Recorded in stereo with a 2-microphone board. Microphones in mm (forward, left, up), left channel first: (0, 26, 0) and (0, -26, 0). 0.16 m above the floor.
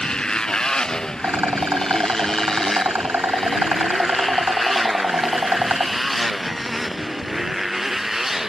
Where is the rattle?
45° right (ahead or behind).